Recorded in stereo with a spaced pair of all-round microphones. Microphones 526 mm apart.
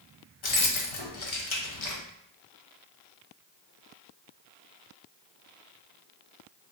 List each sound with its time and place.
0.4 s keys jangling: 65° left (ahead or behind), 0.6 m